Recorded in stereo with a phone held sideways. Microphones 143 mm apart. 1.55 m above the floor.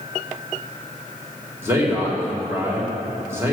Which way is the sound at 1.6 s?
20° right (ahead or behind).